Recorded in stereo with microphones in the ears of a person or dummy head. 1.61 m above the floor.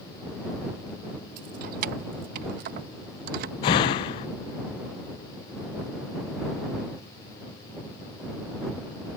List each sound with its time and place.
1.4 s keys jangling: 50° right (ahead or behind)
3.6 s a door slam: 30° left (ahead or behind)